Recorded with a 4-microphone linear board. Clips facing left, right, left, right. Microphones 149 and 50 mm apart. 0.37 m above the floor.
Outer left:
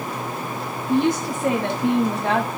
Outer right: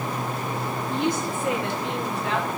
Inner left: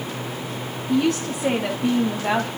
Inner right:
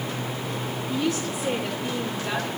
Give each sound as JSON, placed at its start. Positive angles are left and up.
{"t": 0.9, "sound": "a woman speaking", "side_deg": 50, "distance_m": 2.0}